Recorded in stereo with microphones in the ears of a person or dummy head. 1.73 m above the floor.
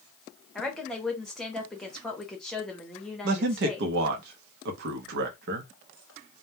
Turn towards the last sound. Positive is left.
turn(degrees=-70)  # may be behind; listen again after turning